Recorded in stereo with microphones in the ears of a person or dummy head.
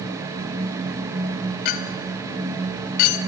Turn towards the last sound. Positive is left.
turn(degrees=40)  # may be behind; listen again after turning